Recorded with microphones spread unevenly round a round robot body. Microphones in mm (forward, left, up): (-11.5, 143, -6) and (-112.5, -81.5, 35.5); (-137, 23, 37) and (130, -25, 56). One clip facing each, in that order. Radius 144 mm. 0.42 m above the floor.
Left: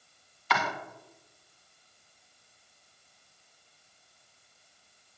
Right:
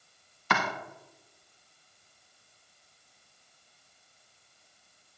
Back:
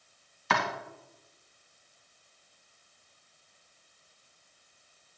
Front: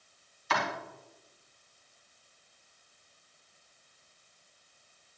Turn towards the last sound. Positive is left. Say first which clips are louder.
# right 1 dB, back 2 dB
turn(degrees=-155)